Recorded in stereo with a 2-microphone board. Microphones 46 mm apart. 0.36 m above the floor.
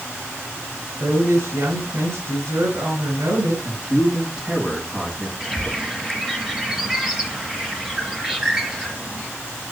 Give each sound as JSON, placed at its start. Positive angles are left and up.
{"t": 1.0, "sound": "a woman speaking", "side_deg": -80, "distance_m": 4.5}
{"t": 3.6, "sound": "a man speaking", "side_deg": -20, "distance_m": 3.5}
{"t": 5.4, "sound": "a bird", "side_deg": -10, "distance_m": 4.0}